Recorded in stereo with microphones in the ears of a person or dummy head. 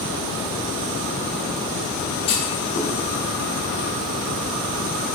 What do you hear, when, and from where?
2.3 s a clunk: 35° left (ahead or behind), 0.7 m